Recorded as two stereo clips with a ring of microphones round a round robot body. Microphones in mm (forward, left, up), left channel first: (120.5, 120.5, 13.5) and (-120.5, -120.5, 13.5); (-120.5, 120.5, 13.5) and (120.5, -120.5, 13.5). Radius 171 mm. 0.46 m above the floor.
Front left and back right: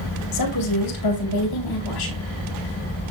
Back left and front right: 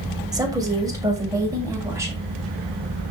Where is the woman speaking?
35° left, 2.5 m.